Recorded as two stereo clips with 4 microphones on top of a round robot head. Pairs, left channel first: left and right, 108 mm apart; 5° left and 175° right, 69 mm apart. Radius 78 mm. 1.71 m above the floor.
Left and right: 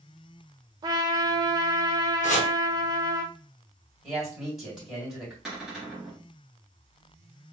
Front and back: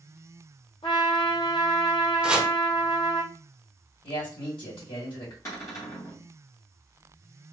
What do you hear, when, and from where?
0.8 s a trumpet: 40° right, 0.5 m
2.2 s chopping: 110° left, 0.6 m
4.0 s a man speaking: straight ahead, 2.5 m
5.5 s a cupboard door: 10° right, 1.3 m